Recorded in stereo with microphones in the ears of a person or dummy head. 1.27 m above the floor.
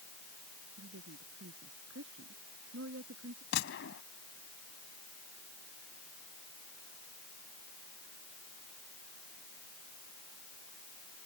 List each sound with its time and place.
0.8 s a woman speaking: 80° right; by 3.4 s 75° right (ahead or behind)
3.5 s a gunshot: 65° left (ahead or behind)